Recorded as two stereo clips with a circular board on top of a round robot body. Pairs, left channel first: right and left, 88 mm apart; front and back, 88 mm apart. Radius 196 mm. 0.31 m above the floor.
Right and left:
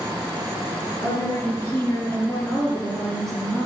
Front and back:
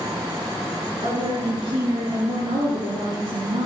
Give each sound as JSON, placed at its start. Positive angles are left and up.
{"t": 1.0, "sound": "a woman speaking", "azimuth_deg": -150, "distance_m": 7.5}